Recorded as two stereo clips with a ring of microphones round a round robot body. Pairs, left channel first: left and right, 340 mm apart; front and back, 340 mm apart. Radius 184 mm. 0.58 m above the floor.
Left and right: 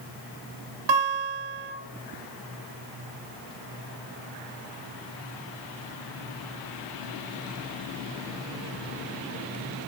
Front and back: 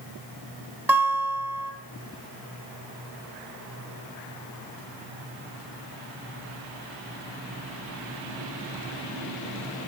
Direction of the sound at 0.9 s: 95° right.